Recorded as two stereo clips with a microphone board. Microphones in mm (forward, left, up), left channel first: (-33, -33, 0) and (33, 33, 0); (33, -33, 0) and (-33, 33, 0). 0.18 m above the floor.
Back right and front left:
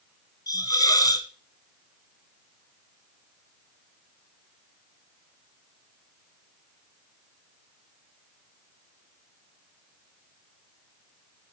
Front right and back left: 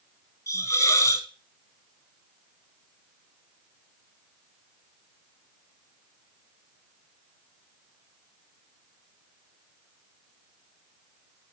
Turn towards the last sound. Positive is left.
turn(degrees=-100)